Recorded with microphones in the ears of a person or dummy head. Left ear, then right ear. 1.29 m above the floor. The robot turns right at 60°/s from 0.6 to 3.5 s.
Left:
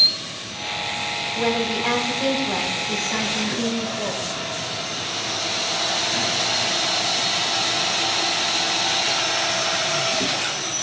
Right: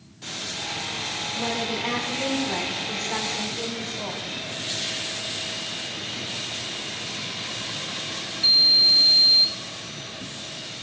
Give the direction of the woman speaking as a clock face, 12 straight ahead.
7 o'clock.